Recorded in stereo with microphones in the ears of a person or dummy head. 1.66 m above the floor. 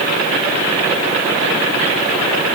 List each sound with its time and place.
Only background noise.